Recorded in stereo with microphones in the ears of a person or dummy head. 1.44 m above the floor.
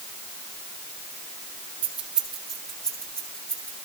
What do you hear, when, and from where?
1.8 s keys jangling: 10° right (ahead or behind), 1.3 m; by 3.8 s 10° left (ahead or behind), 3.5 m